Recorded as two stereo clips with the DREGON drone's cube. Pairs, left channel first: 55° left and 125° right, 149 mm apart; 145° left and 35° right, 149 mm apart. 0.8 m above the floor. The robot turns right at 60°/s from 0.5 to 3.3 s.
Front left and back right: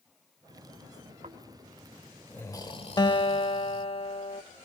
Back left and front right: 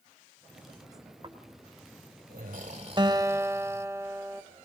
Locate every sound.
1.2 s snoring: 90° right, 1.8 m; by 3.9 s 35° left, 1.8 m
3.0 s a guitar: 10° left, 0.6 m; by 4.4 s 25° left, 0.6 m